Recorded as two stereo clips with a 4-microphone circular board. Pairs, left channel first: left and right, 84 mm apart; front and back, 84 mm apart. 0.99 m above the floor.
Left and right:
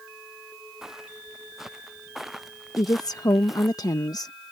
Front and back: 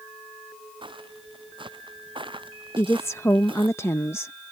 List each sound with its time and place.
0.8 s footsteps: 175° right; by 3.8 s straight behind
2.8 s a woman speaking: 55° left